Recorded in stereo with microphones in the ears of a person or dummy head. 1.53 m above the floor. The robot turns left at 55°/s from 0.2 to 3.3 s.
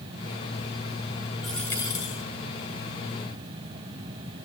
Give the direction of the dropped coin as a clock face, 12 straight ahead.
6 o'clock.